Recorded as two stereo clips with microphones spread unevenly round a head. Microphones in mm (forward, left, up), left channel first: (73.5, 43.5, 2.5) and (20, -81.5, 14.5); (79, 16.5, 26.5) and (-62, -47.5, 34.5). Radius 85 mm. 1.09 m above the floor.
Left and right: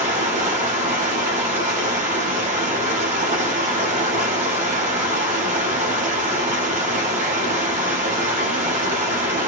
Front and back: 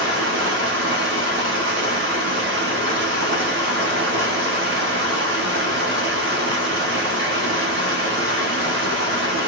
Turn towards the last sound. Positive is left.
turn(degrees=-165)